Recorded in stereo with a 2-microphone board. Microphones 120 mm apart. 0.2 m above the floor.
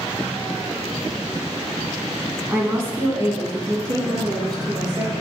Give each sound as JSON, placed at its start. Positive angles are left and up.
{"t": 2.5, "sound": "a woman speaking", "side_deg": -15, "distance_m": 1.8}